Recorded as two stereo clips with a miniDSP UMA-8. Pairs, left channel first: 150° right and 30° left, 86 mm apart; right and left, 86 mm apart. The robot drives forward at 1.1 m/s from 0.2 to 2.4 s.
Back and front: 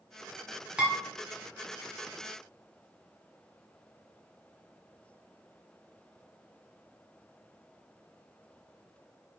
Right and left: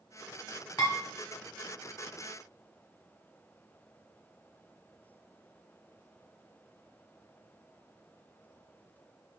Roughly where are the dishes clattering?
Ahead right.